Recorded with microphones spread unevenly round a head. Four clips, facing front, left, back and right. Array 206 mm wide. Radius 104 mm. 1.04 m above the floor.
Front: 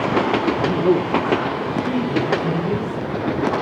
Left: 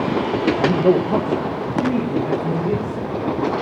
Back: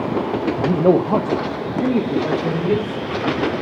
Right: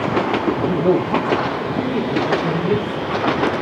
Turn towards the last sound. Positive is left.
turn(degrees=-170)